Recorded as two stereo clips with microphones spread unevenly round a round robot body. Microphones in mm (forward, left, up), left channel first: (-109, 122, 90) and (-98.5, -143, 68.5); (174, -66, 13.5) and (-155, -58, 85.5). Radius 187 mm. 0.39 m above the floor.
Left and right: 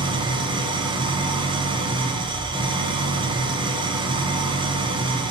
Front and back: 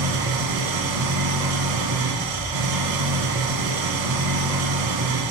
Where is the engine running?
160° right, 0.9 m.